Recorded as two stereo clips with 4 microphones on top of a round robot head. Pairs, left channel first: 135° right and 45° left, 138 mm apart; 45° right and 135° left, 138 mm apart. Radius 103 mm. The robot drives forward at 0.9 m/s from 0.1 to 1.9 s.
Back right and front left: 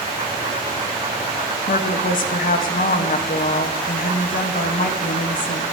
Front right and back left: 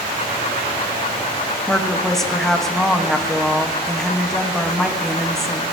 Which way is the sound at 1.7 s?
125° right.